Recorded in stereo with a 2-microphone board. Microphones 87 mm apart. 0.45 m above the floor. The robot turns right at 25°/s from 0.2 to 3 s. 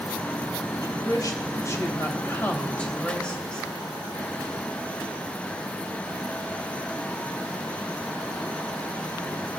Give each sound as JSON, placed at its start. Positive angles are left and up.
{"t": 0.8, "sound": "a woman speaking", "azimuth_deg": 115, "distance_m": 2.5}